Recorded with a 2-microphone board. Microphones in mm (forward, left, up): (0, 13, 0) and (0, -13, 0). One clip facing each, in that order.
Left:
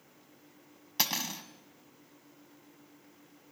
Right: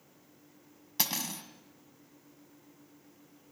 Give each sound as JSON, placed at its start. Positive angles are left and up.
{"t": 1.0, "sound": "cutlery clinking", "side_deg": 20, "distance_m": 1.5}